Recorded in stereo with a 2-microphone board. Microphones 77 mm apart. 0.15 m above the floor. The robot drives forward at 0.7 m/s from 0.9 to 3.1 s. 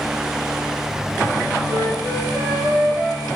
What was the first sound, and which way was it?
A flute, 45° right (ahead or behind).